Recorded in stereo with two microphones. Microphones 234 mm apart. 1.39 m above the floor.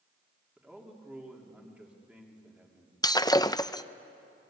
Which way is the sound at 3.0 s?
15° left (ahead or behind).